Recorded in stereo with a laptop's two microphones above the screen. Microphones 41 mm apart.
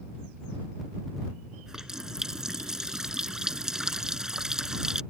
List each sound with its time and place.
1.7 s a running tap: 10° right (ahead or behind)